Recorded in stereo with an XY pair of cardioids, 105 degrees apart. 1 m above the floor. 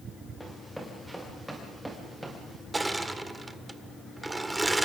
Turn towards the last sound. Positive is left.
turn(degrees=-15)